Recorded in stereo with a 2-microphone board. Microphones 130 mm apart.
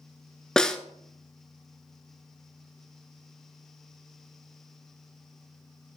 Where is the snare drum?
5° left (ahead or behind), 0.5 m.